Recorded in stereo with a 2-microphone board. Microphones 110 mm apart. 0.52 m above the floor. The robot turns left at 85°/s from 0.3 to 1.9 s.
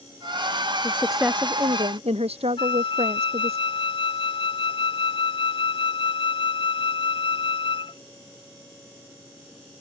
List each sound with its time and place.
0.8 s a woman speaking: 25° left; by 3.6 s 65° right
2.6 s a flute: 50° left (ahead or behind)